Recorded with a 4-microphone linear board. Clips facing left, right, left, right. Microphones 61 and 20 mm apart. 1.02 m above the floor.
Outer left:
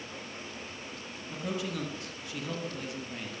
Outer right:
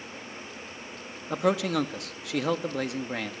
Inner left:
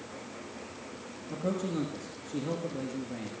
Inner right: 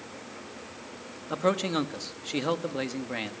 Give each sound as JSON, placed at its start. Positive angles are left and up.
{"t": 1.3, "sound": "a man speaking", "side_deg": -75, "distance_m": 1.5}